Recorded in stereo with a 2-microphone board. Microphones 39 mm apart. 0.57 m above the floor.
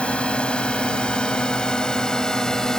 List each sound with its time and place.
0.0 s a drone: 30° left (ahead or behind); by 2.8 s 15° left (ahead or behind)